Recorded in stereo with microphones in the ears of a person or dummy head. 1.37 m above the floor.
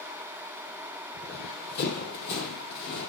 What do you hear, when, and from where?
1.1 s running footsteps: 45° left (ahead or behind), 2.5 m; by 3.1 s 60° left (ahead or behind), 3 m